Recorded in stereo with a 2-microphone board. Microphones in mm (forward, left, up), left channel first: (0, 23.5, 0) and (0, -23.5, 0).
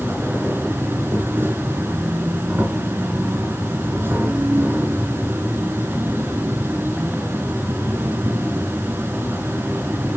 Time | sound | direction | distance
0.0 | an insect | 55° right (ahead or behind) | 2.5 m